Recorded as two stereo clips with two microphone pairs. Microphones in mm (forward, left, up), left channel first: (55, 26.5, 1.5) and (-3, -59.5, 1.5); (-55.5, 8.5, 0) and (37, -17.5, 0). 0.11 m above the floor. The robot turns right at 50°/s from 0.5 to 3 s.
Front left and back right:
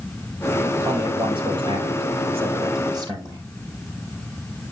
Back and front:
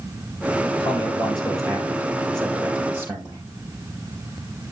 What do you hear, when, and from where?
0.8 s a man speaking: 170° left, 3 m; by 3.4 s 80° right, 3 m